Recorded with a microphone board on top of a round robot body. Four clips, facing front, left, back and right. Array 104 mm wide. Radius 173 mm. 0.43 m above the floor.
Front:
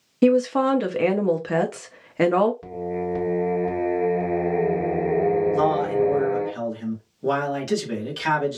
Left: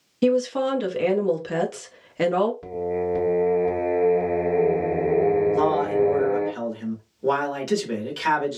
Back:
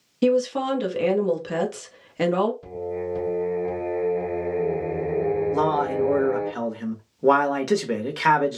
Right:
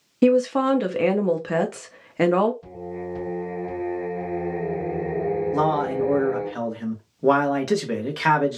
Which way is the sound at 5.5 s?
140° right.